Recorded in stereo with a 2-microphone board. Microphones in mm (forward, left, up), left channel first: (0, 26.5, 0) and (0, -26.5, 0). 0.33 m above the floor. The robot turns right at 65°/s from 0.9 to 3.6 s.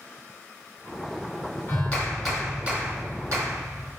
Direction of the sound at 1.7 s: 140° left.